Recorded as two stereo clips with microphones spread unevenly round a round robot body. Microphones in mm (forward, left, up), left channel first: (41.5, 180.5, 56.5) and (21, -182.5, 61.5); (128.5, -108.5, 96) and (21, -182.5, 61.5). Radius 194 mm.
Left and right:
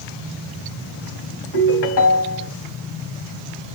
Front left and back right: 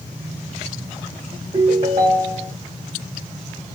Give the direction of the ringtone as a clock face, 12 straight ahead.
7 o'clock.